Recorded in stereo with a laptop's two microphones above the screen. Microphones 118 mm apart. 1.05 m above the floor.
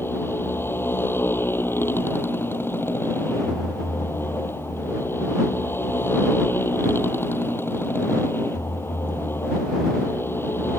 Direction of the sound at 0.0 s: 20° left (ahead or behind).